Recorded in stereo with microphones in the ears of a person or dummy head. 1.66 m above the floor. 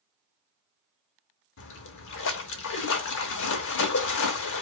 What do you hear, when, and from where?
1.6 s a splash: 70° left (ahead or behind), 0.6 m